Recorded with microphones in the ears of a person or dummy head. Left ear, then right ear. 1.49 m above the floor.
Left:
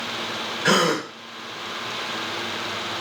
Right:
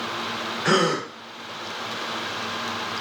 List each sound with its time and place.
0.7 s a gasp: 10° left (ahead or behind), 0.5 m